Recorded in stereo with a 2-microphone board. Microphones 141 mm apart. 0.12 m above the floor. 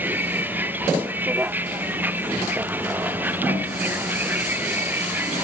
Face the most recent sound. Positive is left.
turn(degrees=-15)  # may be behind; listen again after turning